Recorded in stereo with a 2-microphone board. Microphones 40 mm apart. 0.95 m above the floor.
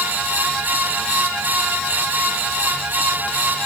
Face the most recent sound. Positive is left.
No sound to turn to.